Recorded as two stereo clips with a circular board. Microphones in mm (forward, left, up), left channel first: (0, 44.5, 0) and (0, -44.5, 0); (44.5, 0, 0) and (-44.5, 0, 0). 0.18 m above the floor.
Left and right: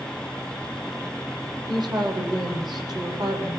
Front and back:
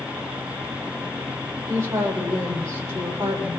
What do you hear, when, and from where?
1.7 s a woman speaking: 125° right, 6 m; by 3.6 s 120° right, 7.5 m